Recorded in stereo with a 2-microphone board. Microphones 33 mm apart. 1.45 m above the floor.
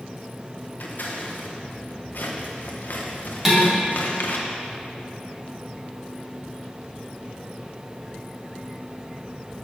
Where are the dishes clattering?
5° right (ahead or behind), 2.5 m.